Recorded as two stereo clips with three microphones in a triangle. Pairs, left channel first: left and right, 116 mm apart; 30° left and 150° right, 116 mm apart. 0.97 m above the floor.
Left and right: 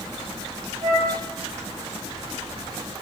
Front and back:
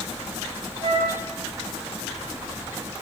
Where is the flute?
105° right, 0.9 m.